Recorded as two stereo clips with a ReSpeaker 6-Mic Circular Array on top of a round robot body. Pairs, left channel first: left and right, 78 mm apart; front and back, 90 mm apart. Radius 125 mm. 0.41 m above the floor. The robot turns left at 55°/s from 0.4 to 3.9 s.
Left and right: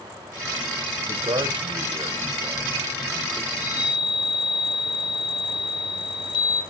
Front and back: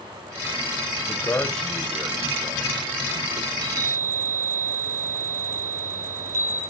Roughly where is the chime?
Behind left.